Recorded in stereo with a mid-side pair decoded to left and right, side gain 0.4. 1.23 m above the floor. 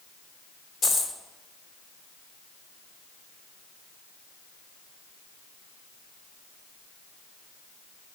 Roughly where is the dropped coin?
Ahead left.